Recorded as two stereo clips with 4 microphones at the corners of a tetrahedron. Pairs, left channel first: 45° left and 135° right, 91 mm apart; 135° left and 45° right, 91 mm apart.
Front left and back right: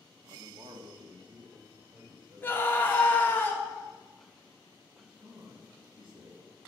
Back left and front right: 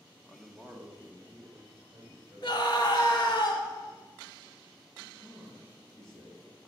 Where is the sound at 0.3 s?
155° right, 1.1 m; by 3.4 s 95° right, 4.5 m.